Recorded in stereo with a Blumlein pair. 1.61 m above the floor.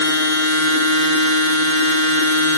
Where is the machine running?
60° left, 2.5 m.